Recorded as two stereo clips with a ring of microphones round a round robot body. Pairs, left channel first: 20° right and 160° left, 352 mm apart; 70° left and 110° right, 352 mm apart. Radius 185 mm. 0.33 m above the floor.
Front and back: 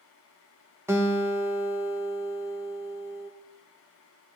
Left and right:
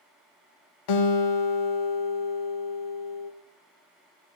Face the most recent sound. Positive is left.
turn(degrees=75)